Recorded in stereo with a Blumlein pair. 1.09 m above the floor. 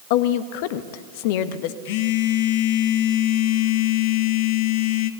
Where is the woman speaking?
50° left, 1.5 m.